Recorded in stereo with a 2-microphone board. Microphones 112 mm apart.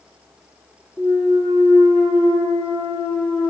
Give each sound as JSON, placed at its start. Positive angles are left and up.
{"t": 1.0, "sound": "a clunk", "side_deg": 15, "distance_m": 3.0}